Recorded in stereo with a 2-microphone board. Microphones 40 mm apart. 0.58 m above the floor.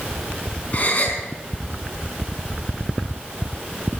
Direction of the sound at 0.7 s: 40° left (ahead or behind).